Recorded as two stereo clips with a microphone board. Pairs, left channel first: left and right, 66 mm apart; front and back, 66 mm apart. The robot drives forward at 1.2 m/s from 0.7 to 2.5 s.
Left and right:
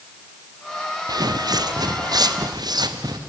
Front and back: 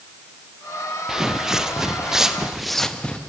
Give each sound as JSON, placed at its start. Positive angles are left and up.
{"t": 1.1, "sound": "footsteps", "azimuth_deg": -100, "distance_m": 0.7}